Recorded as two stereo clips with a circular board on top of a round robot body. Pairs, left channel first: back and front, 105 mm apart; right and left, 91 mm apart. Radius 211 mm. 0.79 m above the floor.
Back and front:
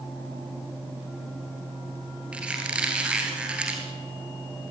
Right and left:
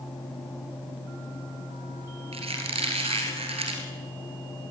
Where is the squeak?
80° left, 2.5 m.